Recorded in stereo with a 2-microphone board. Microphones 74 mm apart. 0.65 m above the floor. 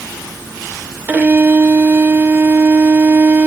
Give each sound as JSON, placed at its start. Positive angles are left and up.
{"t": 1.1, "sound": "a violin", "side_deg": -25, "distance_m": 0.5}